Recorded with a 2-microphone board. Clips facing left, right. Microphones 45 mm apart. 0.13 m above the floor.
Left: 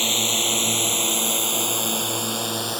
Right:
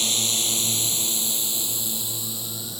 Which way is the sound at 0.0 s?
30° left (ahead or behind).